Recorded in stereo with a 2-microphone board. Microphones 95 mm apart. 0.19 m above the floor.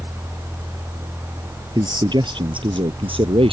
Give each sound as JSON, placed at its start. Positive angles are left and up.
{"t": 1.8, "sound": "a man speaking", "side_deg": -45}